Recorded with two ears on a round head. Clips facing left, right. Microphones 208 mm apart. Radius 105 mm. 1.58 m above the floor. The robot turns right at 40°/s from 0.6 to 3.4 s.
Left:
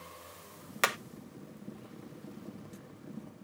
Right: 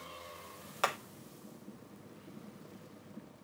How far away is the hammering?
About 0.8 m.